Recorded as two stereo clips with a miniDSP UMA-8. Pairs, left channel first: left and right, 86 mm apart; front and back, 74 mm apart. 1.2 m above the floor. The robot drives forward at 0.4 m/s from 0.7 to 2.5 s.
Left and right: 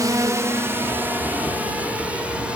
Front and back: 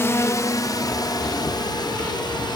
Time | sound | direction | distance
0.0 | a drone | 50° right | ?